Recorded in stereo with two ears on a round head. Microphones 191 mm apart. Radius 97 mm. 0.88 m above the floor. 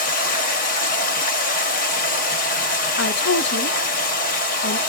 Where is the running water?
40° left (ahead or behind), 1.0 m.